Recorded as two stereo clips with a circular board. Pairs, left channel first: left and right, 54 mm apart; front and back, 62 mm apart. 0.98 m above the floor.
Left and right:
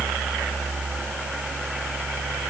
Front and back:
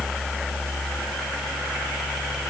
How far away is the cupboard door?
I don't hear a cupboard door.